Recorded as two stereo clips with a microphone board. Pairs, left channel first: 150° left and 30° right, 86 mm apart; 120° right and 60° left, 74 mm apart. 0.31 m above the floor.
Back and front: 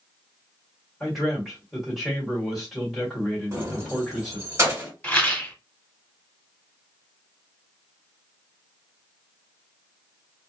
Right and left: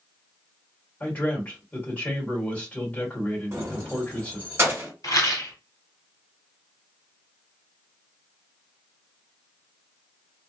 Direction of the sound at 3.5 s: 15° left.